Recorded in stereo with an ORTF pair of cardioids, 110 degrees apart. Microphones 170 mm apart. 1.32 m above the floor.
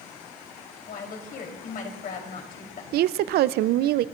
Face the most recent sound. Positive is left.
turn(degrees=-70)